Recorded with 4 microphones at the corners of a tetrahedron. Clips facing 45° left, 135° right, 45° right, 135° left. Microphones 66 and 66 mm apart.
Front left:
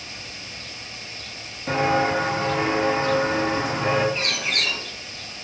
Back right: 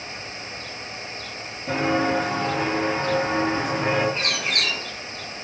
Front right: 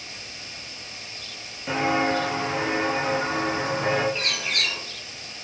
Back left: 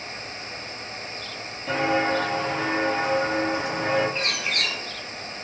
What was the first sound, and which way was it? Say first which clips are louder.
Footsteps: front left 1 dB, even; 30° left.